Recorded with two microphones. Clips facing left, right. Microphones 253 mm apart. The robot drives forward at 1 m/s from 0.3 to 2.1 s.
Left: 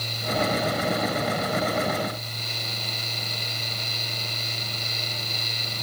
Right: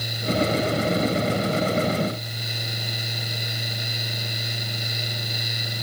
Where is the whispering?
No whispering in this recording.